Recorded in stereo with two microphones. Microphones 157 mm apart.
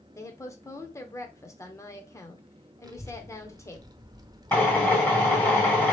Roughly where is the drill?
Centre.